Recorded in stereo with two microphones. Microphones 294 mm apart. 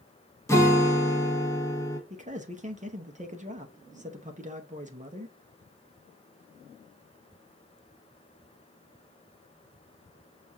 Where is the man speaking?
25° right (ahead or behind), 0.8 m.